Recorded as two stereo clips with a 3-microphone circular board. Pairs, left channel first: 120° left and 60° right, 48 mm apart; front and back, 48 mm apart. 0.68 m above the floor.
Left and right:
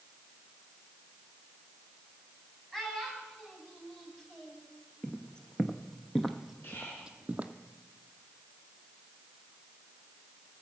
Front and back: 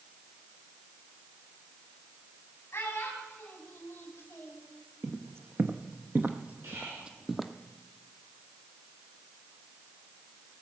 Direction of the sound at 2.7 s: 35° left.